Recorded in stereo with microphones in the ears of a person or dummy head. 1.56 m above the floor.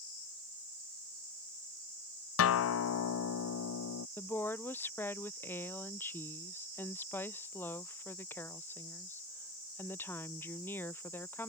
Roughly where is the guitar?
Left.